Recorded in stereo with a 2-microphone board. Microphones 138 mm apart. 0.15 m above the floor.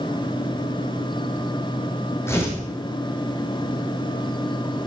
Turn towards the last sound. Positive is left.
turn(degrees=20)  # may be behind; listen again after turning